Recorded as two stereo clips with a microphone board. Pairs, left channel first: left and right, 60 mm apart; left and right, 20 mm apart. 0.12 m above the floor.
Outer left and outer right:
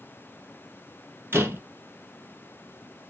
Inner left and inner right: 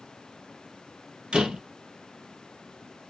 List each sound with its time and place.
1.3 s a door slam: 40° right (ahead or behind), 2.5 m